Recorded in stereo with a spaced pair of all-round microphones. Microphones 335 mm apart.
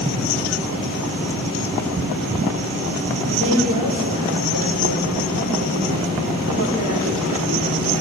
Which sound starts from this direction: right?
A woman speaking, at 3.3 s.